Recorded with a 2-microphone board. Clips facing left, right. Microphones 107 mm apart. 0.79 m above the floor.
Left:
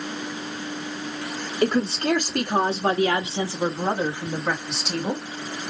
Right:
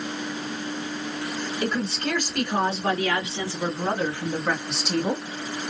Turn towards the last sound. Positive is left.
turn(degrees=-10)  # may be behind; listen again after turning